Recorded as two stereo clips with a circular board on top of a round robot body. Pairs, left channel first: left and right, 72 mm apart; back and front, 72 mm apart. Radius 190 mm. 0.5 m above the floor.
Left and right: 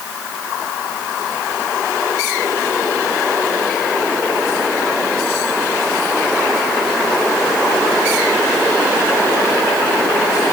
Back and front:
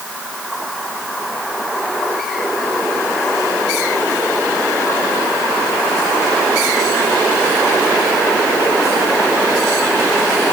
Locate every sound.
Only background noise.